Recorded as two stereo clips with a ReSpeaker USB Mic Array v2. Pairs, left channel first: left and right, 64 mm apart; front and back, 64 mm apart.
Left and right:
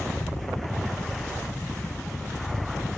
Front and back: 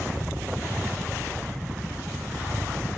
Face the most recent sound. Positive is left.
turn(degrees=135)